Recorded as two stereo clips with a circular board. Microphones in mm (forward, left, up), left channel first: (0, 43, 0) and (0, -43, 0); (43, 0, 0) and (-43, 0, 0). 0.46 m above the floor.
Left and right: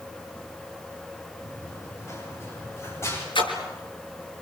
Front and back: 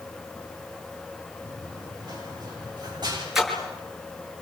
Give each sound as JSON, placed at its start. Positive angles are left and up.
{"t": 1.4, "sound": "running footsteps", "azimuth_deg": 145, "distance_m": 9.0}
{"t": 3.4, "sound": "a splash", "azimuth_deg": 95, "distance_m": 5.5}